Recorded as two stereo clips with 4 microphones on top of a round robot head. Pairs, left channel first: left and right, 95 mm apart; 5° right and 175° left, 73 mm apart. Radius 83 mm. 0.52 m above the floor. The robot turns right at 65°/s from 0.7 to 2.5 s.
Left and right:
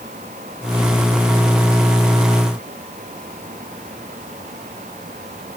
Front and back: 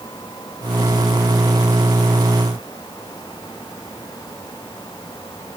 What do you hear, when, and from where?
Only background noise.